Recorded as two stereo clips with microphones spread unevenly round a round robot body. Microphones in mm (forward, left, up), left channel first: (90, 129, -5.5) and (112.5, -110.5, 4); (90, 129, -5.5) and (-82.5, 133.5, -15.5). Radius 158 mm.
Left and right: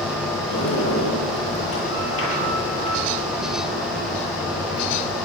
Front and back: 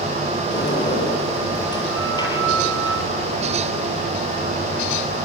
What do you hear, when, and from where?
0.5 s a sliding door: 65° left, 9.5 m